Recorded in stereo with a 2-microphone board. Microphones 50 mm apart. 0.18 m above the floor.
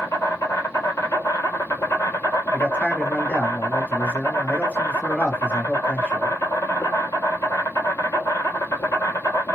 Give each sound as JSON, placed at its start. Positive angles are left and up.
{"t": 0.0, "sound": "an insect", "side_deg": 80, "distance_m": 1.0}
{"t": 2.5, "sound": "a man speaking", "side_deg": 30, "distance_m": 1.6}